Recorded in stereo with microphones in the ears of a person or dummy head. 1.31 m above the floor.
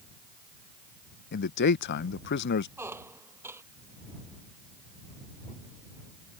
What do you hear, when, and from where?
1.3 s a man speaking: 50° left (ahead or behind)
2.8 s a squeak: 10° right (ahead or behind)